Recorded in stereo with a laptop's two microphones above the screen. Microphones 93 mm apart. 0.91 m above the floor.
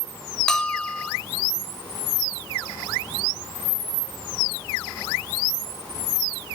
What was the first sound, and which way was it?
A bell, 5° left (ahead or behind).